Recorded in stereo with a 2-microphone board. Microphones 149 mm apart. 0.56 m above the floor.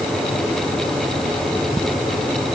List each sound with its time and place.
Only background noise.